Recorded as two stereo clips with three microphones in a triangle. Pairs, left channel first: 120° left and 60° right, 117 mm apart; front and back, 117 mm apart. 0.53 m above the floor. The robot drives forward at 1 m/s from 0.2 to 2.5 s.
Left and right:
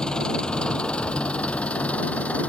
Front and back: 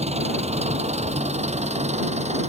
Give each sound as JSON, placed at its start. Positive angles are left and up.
{"t": 0.0, "sound": "an engine running", "azimuth_deg": -155}